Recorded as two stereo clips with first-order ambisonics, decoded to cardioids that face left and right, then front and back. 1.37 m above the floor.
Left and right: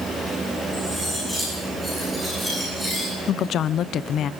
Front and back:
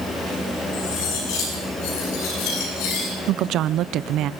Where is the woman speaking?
140° left, 0.7 m.